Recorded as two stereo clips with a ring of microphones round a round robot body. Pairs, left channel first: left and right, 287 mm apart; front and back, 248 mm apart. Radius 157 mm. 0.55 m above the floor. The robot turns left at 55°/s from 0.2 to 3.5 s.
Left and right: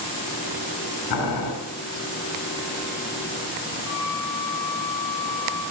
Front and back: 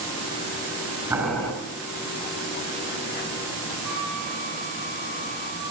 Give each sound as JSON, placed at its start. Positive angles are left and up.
{"t": 1.1, "sound": "boiling", "azimuth_deg": 100, "distance_m": 6.5}
{"t": 3.8, "sound": "a flute", "azimuth_deg": 170, "distance_m": 4.0}